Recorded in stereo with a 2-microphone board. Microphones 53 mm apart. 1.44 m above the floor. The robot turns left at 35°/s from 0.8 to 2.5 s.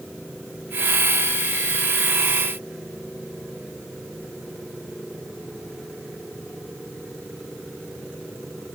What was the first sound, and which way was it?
Only background noise.